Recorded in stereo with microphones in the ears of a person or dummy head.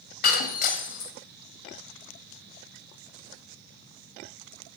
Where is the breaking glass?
50° left (ahead or behind), 1.6 m.